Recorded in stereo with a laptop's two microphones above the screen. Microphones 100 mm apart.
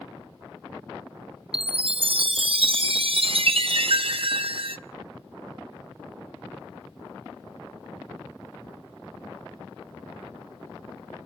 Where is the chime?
65° right (ahead or behind), 0.6 m.